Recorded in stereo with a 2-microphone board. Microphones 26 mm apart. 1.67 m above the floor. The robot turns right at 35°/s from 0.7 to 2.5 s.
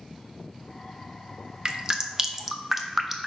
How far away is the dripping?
About 0.6 m.